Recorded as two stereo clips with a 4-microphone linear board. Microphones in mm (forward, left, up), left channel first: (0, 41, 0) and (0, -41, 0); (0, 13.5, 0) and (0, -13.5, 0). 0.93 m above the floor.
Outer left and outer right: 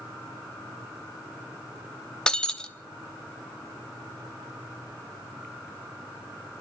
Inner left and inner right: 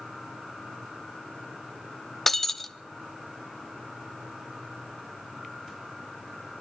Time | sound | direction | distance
2.3 | breaking glass | 10° left (ahead or behind) | 0.5 m